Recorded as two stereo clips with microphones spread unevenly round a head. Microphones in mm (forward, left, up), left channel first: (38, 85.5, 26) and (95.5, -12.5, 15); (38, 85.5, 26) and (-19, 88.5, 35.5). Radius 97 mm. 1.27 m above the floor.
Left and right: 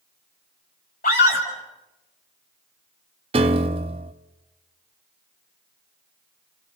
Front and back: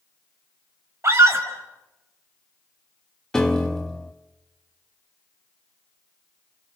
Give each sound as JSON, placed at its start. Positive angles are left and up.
{"t": 1.0, "sound": "a scream", "azimuth_deg": 140, "distance_m": 6.0}
{"t": 3.3, "sound": "a piano", "azimuth_deg": -95, "distance_m": 0.7}